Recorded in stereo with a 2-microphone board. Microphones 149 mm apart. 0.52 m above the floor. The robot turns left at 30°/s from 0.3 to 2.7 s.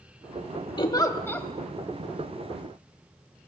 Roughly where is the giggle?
Left.